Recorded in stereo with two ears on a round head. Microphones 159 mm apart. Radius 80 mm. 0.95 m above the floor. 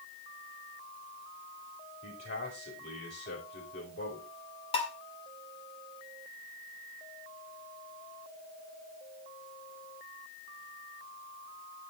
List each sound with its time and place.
2.0 s a man speaking: 65° left (ahead or behind), 4.5 m
4.7 s dishes clattering: 30° left (ahead or behind), 2 m